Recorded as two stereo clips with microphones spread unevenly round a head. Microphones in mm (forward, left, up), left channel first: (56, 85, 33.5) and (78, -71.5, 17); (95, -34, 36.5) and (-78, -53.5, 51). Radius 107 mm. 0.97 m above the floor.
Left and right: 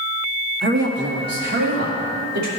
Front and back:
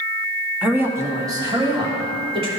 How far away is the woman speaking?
About 1.4 m.